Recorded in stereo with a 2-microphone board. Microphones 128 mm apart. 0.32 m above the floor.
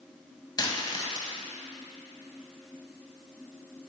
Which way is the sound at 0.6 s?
35° left (ahead or behind).